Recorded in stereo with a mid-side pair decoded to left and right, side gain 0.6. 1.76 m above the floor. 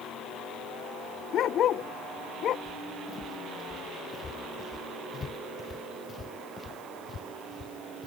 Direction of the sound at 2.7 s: 30° left.